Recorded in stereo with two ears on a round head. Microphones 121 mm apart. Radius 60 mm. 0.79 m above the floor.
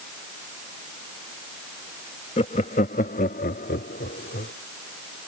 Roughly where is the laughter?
Left.